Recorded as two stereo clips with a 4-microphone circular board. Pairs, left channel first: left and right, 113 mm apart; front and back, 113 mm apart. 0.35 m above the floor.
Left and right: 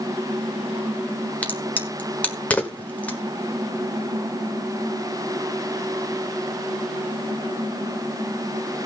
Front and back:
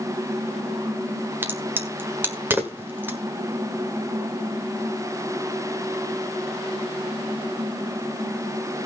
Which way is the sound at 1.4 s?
145° left.